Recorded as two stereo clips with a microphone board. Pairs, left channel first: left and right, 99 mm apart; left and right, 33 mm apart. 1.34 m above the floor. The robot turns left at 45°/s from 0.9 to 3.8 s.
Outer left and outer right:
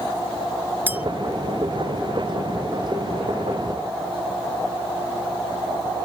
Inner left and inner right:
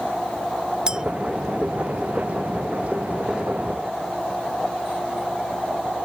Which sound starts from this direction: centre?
A clink, at 0.9 s.